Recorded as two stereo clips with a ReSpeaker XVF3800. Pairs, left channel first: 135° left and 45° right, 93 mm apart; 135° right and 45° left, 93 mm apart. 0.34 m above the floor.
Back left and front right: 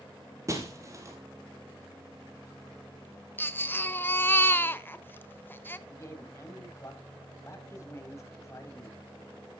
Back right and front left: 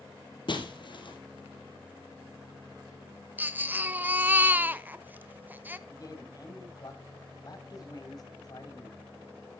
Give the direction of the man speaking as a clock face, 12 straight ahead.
6 o'clock.